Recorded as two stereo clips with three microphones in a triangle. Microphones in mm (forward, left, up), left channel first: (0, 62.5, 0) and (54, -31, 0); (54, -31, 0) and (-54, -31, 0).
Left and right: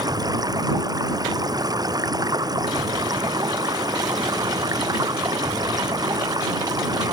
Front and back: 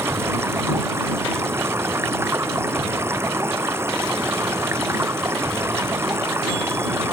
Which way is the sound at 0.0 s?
115° right.